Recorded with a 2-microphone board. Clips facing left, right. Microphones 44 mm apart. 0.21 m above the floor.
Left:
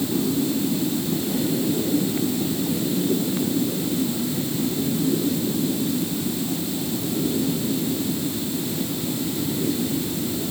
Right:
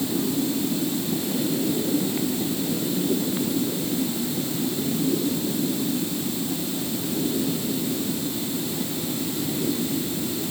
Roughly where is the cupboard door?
No cupboard door in this recording.